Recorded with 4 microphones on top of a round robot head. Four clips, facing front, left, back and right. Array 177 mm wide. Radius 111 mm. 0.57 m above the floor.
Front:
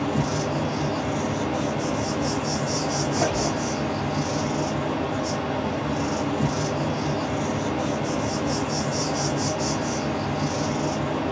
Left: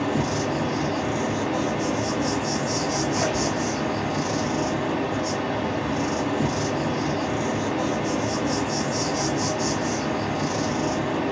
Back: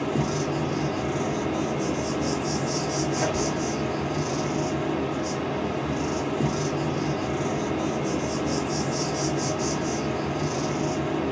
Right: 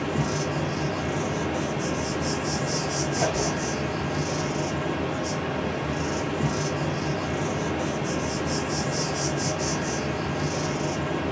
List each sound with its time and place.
0.0 s an insect: 65° left, 1.5 m
3.1 s a squeak: 5° left, 1.3 m